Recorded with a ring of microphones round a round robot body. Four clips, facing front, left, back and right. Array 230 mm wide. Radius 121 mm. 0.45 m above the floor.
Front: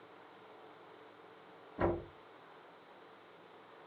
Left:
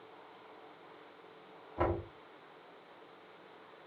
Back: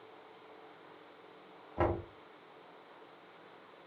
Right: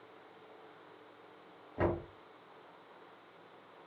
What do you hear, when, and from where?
1.8 s knocking: straight behind, 2.5 m